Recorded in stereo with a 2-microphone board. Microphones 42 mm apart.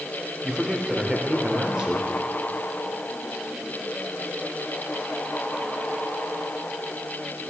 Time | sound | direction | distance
0.4 | a man speaking | 15° right (ahead or behind) | 1.1 m